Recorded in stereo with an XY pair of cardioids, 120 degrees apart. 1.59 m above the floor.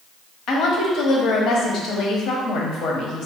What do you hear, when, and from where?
0.5 s a woman speaking: 65° left, 1.0 m